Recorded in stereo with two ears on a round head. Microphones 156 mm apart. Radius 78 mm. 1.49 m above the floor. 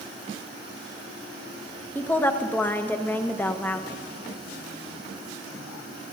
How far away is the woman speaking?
About 0.6 m.